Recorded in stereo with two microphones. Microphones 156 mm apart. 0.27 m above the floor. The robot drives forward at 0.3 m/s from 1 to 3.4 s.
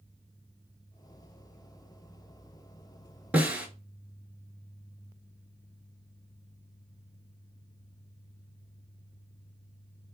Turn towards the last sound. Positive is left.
turn(degrees=-10)  # may be behind; listen again after turning